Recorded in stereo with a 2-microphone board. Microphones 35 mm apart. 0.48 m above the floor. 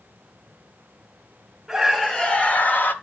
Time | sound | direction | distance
1.7 | a scream | 5° right (ahead or behind) | 1.3 m